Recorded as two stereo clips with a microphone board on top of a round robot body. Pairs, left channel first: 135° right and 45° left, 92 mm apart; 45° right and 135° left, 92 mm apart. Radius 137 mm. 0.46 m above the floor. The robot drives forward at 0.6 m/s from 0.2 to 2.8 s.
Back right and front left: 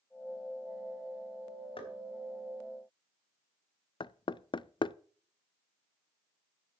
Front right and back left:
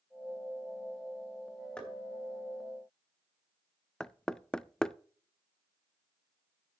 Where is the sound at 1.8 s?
120° right, 3 m; by 1.9 s 125° right, 3.5 m.